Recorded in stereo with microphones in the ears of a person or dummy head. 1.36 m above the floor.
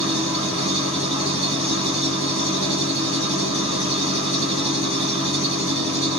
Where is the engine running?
40° left (ahead or behind), 7.5 m.